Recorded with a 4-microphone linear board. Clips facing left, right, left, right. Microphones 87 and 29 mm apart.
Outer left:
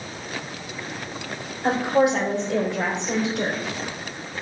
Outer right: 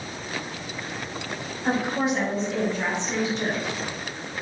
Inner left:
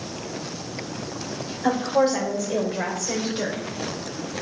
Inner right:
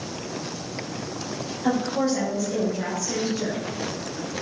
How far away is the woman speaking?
About 4.5 m.